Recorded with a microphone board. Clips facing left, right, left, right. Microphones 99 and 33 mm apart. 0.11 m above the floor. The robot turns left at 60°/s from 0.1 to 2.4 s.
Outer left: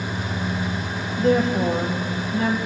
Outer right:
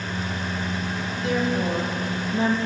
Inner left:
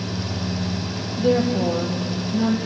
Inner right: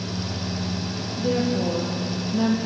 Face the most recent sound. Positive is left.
turn(degrees=-25)